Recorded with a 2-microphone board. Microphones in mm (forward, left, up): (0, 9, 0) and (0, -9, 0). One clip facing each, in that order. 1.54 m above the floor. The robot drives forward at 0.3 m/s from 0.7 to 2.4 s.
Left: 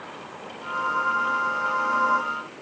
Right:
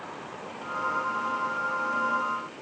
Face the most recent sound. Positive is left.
No sound to turn to.